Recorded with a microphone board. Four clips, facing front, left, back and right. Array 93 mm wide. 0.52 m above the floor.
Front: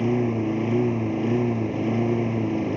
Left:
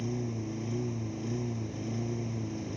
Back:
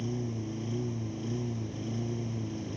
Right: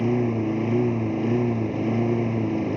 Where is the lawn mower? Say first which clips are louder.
Right 13 dB, front 13 dB; 45° right.